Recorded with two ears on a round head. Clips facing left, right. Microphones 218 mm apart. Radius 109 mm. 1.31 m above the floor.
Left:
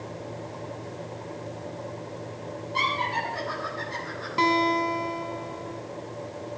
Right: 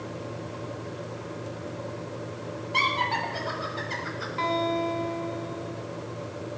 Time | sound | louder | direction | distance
2.7 | laughter | right 1 dB | 85° right | 7.5 m
4.4 | a guitar | left 3 dB | 65° left (ahead or behind) | 2.5 m